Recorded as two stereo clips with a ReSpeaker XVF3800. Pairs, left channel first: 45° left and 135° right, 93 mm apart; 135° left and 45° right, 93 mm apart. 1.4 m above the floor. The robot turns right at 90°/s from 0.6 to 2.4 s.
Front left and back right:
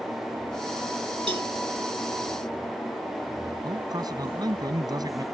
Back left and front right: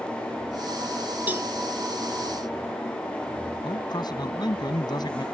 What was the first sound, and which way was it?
A cowbell, 115° right.